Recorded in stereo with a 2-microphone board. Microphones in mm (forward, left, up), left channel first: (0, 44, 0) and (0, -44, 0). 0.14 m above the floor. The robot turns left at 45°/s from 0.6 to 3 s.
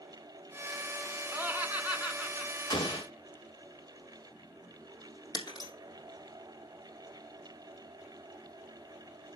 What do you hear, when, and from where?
1.3 s laughter: 25° right (ahead or behind), 1.4 m; by 2.5 s 5° right (ahead or behind), 1.4 m
2.7 s an explosion: 50° left (ahead or behind), 1.8 m; by 3.1 s 60° left (ahead or behind), 1.8 m
5.3 s breaking glass: 50° left (ahead or behind), 3.5 m